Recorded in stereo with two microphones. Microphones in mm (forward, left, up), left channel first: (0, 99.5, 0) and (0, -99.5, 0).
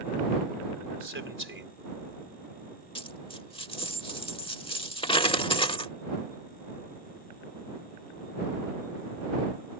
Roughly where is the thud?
I don't hear a thud.